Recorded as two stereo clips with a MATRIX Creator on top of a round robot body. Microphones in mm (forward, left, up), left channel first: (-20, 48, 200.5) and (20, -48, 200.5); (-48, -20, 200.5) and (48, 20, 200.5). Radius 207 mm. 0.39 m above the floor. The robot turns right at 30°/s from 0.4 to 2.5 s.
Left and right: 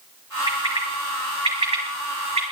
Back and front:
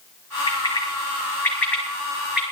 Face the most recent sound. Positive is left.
turn(degrees=-55)